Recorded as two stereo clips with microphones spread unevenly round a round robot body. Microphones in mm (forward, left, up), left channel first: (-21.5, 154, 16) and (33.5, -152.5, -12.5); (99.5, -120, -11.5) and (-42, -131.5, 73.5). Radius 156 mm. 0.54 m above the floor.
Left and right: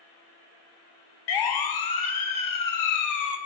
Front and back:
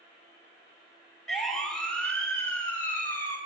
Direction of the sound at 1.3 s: 85° left.